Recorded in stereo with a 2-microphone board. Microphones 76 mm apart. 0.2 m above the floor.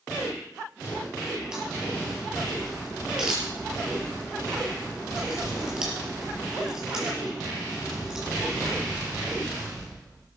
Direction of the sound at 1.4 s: 10° right (ahead or behind).